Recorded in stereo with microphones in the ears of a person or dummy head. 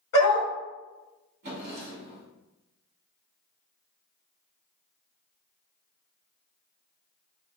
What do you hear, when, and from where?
0.1 s a dog barking: 45° left (ahead or behind), 1.6 m
1.4 s a drawer: 45° right (ahead or behind), 1.2 m